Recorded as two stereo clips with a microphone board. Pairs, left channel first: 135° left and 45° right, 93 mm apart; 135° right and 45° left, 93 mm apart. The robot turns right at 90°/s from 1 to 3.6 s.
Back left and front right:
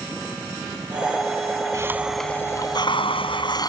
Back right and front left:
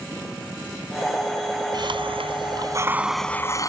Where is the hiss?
5° left; by 3.7 s 175° left.